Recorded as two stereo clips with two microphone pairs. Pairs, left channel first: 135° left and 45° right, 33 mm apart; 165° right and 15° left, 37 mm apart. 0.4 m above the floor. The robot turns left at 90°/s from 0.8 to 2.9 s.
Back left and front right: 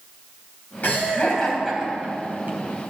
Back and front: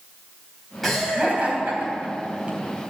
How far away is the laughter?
About 3 m.